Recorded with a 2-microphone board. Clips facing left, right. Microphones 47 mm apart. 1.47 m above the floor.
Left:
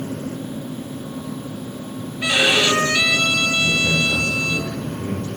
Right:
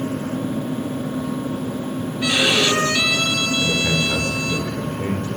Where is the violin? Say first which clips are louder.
Left 1 dB; 20° left (ahead or behind), 9.5 m.